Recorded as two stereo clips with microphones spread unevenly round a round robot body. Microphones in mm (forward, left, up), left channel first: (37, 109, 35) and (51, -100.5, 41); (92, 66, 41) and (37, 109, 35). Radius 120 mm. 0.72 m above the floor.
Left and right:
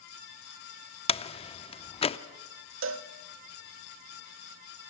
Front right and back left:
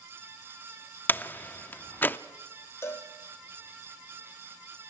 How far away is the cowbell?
About 0.8 m.